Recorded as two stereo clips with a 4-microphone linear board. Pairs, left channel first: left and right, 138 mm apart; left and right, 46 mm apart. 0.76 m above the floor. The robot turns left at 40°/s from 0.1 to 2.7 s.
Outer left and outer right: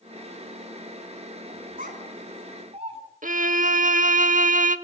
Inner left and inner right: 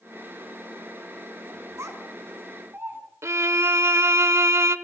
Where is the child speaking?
85° right, 4 m; by 3.0 s 50° right (ahead or behind), 4 m.